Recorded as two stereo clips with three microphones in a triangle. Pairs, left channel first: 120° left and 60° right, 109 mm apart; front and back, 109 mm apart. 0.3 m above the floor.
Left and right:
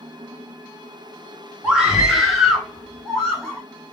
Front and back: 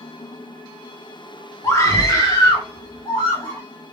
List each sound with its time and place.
1.6 s a scream: 15° left, 1.0 m; by 3.6 s 40° left, 1.7 m